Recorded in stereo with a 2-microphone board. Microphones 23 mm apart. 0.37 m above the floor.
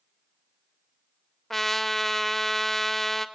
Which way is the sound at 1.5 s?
10° left (ahead or behind).